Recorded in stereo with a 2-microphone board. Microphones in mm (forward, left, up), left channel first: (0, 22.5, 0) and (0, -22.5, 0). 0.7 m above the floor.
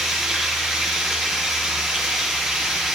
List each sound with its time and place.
0.0 s running water: 5° right (ahead or behind), 7.5 m